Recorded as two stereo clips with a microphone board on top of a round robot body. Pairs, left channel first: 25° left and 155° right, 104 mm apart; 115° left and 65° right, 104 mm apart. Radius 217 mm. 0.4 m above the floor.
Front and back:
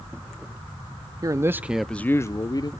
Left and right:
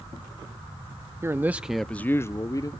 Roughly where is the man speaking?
Behind right.